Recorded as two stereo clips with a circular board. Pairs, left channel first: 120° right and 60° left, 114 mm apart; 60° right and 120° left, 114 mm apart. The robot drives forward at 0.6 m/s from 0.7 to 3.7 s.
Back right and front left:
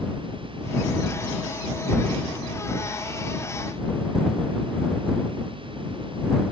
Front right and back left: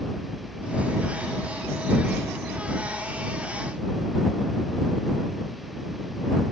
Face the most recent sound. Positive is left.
No sound to turn to.